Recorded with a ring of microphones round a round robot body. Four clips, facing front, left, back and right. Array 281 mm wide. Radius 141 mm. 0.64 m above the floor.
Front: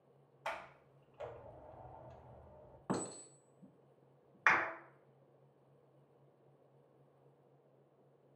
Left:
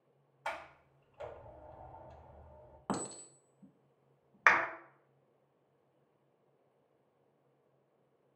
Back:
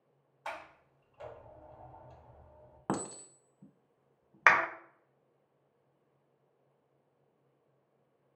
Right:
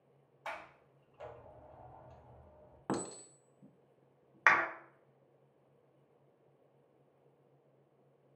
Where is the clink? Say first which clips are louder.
Right 1 dB, back 4 dB; 170° right, 1.0 m.